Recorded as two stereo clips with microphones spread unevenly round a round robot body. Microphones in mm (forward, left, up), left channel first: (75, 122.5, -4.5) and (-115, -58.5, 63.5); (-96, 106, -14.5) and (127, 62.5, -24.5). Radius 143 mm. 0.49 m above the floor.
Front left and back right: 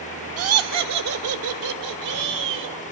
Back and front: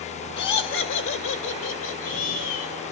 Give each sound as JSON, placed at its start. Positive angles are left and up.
{"t": 0.4, "sound": "laughter", "azimuth_deg": -160, "distance_m": 1.4}